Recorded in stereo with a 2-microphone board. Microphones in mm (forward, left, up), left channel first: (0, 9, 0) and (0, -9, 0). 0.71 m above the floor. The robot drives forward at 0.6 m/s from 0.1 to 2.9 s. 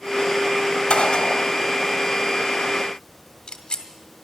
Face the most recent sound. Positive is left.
turn(degrees=40)  # may be behind; listen again after turning